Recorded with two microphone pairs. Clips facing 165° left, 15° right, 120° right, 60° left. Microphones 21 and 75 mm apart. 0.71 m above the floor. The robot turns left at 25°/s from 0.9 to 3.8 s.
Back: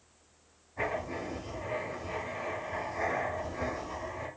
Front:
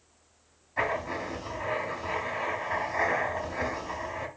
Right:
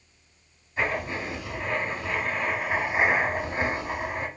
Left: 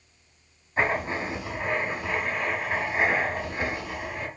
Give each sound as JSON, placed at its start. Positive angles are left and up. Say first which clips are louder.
{"t": 0.8, "sound": "writing", "louder": "front 4 dB, left 2 dB", "azimuth_deg": 10, "distance_m": 2.5}